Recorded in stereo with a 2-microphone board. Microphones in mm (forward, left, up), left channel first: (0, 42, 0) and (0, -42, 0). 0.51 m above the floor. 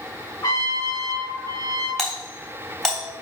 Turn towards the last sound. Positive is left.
turn(degrees=5)  # may be behind; listen again after turning